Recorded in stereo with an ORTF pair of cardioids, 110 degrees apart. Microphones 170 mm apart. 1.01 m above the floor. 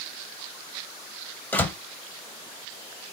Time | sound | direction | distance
1.5 | a door slam | 10° left | 0.8 m